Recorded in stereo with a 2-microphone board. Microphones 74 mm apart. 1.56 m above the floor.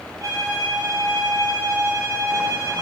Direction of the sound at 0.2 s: 50° right (ahead or behind).